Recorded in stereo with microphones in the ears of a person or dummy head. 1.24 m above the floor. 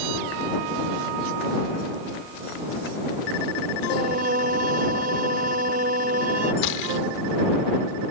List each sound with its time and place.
3.9 s singing: 45° right (ahead or behind)
6.6 s a gunshot: 65° left (ahead or behind)